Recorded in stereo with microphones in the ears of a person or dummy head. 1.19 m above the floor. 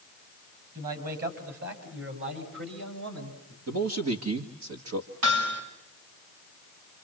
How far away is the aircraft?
No aircraft in this recording.